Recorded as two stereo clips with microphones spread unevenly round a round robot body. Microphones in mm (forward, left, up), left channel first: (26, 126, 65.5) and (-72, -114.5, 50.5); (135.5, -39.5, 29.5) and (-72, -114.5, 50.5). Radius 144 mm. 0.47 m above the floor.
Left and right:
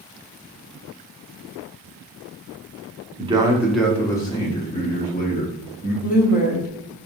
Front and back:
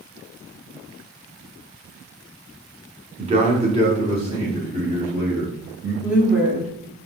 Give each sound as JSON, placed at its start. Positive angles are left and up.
{"t": 3.2, "sound": "a man speaking", "azimuth_deg": -120, "distance_m": 1.0}
{"t": 6.0, "sound": "a woman speaking", "azimuth_deg": 110, "distance_m": 1.2}